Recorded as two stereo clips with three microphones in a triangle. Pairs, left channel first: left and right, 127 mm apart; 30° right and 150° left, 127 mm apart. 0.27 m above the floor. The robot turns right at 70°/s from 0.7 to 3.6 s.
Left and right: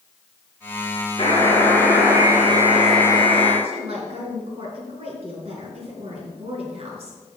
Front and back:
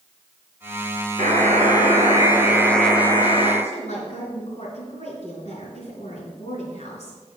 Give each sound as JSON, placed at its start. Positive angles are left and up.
{"t": 1.2, "sound": "a buzzer", "azimuth_deg": 135, "distance_m": 2.5}
{"t": 3.6, "sound": "a woman speaking", "azimuth_deg": -55, "distance_m": 3.5}